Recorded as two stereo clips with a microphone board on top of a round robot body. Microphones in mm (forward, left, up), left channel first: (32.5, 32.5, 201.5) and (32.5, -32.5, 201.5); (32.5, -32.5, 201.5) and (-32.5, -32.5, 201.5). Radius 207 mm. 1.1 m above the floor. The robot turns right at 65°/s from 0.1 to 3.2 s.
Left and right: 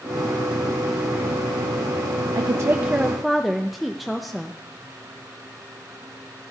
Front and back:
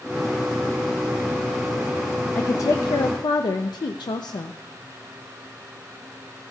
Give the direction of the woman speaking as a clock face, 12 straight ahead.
2 o'clock.